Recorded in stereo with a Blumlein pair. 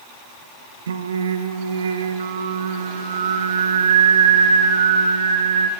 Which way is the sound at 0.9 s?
65° right.